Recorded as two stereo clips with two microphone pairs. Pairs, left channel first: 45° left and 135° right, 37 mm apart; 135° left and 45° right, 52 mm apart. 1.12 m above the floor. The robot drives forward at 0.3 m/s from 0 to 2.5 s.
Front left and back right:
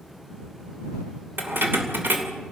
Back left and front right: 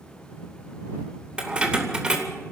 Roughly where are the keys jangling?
Behind right.